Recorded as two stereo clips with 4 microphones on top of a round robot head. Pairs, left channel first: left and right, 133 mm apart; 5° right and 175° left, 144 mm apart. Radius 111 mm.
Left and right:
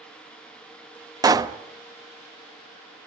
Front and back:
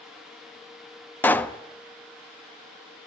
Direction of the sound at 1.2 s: 70° right.